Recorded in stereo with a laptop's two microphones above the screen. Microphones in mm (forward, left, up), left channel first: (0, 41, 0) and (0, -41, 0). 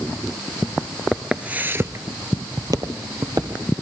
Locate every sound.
1.1 s footsteps: 5° right (ahead or behind), 1.0 m; by 3.6 s 55° right (ahead or behind), 2 m